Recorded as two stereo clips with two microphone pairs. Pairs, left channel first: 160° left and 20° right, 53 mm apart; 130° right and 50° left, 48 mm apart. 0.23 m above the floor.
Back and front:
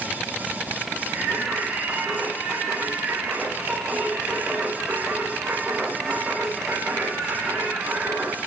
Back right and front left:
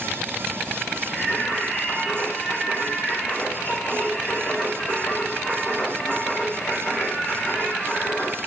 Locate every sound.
1.1 s singing: 85° right, 8 m